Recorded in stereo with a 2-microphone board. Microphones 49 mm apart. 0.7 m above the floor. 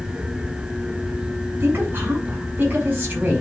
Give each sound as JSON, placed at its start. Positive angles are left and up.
{"t": 1.6, "sound": "a woman speaking", "side_deg": -45, "distance_m": 6.0}